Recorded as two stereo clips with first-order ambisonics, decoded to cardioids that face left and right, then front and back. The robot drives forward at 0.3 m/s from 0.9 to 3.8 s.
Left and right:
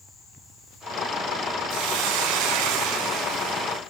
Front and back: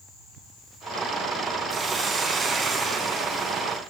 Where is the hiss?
105° right, 6 m; by 3.8 s 110° right, 6 m.